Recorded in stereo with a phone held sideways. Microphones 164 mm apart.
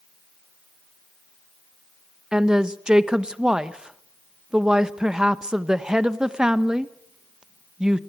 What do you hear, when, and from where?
2.3 s a woman speaking: 5° right (ahead or behind), 1.1 m